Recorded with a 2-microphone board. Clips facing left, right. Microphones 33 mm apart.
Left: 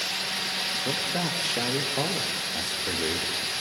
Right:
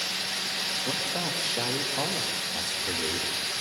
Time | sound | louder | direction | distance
0.8 | a man speaking | left 2 dB | 70° left (ahead or behind) | 4 m